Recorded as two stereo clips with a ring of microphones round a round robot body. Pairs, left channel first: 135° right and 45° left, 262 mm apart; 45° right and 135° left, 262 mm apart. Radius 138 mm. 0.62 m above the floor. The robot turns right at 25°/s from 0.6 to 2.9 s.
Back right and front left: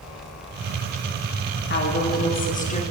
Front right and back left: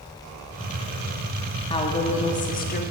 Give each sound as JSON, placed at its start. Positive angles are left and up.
{"t": 1.7, "sound": "a woman speaking", "azimuth_deg": -110, "distance_m": 1.1}